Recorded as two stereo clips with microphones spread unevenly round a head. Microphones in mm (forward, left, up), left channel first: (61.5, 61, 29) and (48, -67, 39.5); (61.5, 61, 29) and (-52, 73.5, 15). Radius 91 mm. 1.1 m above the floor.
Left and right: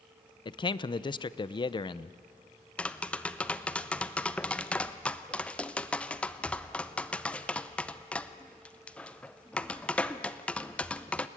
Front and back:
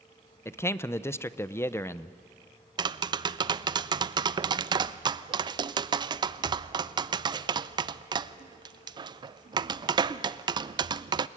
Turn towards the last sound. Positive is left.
turn(degrees=160)